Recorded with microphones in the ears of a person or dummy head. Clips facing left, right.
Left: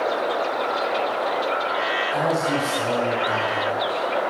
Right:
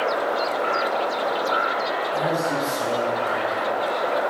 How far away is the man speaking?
About 1.5 m.